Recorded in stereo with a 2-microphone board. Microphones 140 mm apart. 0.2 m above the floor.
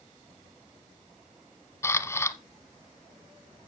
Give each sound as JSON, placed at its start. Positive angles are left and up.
{"t": 1.8, "sound": "a camera shutter", "side_deg": 20, "distance_m": 0.9}